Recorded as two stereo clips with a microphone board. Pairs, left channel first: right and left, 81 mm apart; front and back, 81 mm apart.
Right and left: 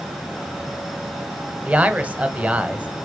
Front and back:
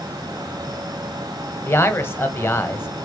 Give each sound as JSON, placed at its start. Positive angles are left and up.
{"t": 1.7, "sound": "a man speaking", "azimuth_deg": 30, "distance_m": 1.3}